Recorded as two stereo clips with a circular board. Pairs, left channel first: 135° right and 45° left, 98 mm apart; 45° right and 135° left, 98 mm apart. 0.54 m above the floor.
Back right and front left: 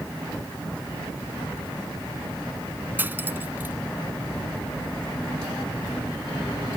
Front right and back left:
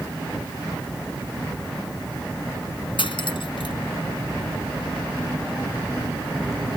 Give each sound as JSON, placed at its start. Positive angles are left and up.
{"t": 3.0, "sound": "cutlery clinking", "azimuth_deg": -25}